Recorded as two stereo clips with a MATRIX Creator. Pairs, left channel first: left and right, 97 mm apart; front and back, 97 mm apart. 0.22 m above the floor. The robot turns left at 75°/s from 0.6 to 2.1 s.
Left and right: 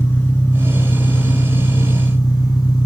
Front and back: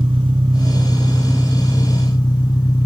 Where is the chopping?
No chopping in this recording.